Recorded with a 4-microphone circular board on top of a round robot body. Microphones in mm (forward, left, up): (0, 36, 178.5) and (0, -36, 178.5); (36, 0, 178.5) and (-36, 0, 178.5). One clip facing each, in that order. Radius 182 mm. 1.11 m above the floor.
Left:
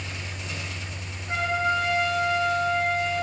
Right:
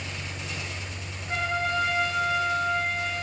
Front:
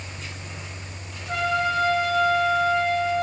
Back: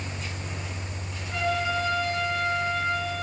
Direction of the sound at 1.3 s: 15° left.